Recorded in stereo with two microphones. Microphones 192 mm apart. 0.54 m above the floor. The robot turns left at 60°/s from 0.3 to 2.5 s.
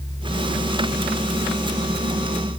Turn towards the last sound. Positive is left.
No sound to turn to.